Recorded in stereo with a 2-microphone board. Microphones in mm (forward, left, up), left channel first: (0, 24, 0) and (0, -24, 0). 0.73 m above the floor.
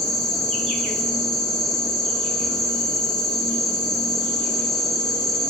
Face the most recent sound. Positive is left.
turn(degrees=5)  # may be behind; listen again after turning